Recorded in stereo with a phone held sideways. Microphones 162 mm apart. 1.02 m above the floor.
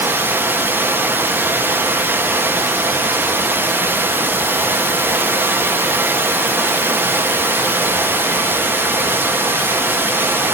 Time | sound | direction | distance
0.0 | running water | 15° right (ahead or behind) | 0.7 m